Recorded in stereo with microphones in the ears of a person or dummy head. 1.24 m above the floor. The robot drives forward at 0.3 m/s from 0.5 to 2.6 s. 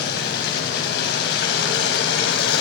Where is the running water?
60° left (ahead or behind), 4.5 m; by 2.6 s 65° left (ahead or behind), 4.5 m.